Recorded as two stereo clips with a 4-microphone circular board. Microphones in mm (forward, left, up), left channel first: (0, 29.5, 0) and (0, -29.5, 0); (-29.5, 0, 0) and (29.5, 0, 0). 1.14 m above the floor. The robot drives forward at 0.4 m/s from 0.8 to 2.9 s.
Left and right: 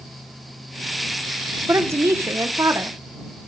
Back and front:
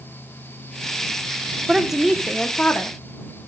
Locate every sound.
1.7 s a woman speaking: 75° right, 0.7 m; by 3.0 s 125° right, 0.7 m